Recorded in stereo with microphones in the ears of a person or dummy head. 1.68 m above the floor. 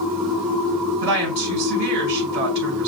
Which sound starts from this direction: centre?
A machine running, at 0.0 s.